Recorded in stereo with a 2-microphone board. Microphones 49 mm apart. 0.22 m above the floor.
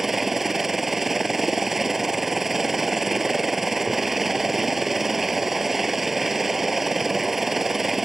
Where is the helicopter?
5° right (ahead or behind).